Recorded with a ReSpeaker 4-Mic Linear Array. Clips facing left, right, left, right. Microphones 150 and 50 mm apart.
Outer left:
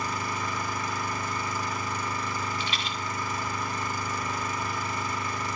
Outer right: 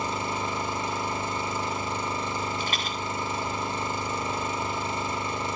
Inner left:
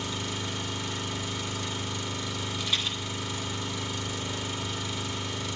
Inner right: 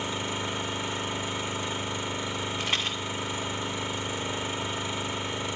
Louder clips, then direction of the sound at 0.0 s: Outer right 2 dB, inner right 3 dB; 25° right (ahead or behind).